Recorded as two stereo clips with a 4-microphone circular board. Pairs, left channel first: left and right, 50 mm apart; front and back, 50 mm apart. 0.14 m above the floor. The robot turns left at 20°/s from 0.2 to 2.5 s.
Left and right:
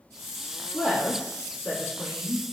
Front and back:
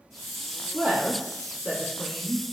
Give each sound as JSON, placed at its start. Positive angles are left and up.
{"t": 0.7, "sound": "a woman speaking", "azimuth_deg": 170, "distance_m": 1.2}